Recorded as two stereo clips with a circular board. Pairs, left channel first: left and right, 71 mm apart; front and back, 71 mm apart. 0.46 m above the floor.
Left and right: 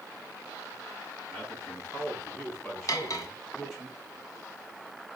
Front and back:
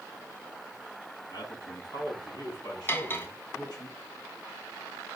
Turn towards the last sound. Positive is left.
turn(degrees=60)